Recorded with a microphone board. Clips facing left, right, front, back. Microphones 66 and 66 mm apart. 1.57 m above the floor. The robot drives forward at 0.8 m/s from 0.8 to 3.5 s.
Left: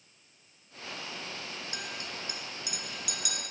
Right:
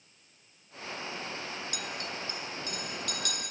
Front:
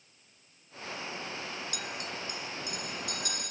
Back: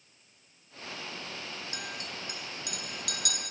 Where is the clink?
135° left, 0.5 m; by 3.4 s 170° left, 1.6 m.